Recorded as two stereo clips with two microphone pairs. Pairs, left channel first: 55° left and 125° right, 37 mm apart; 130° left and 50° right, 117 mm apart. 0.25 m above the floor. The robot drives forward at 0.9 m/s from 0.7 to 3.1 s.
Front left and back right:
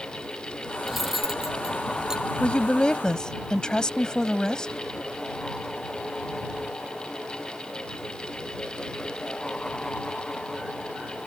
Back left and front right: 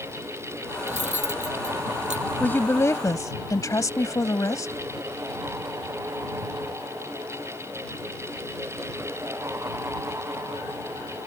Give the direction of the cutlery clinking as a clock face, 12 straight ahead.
1 o'clock.